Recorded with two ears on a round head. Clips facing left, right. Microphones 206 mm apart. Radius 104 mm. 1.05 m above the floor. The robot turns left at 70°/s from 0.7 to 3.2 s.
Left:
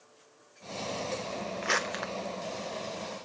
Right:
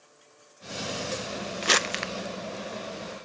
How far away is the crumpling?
About 0.5 m.